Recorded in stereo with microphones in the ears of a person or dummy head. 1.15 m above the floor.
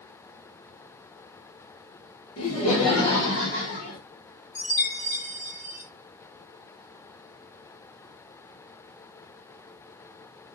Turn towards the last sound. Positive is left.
turn(degrees=35)  # may be behind; listen again after turning